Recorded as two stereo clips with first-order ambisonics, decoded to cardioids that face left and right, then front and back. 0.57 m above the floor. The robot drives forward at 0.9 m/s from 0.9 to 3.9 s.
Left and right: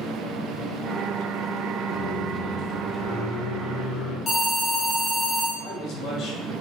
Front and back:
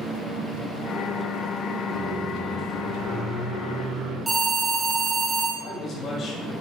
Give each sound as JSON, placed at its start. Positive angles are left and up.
{"t": 1.9, "sound": "a microwave", "azimuth_deg": 105, "distance_m": 3.0}
{"t": 4.3, "sound": "an alarm", "azimuth_deg": 110, "distance_m": 1.3}
{"t": 5.6, "sound": "a man speaking", "azimuth_deg": 50, "distance_m": 2.5}